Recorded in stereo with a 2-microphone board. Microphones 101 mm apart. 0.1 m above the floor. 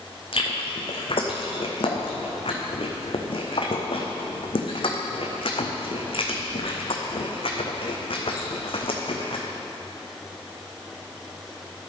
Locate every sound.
0.3 s chewing: 65° left (ahead or behind), 1.4 m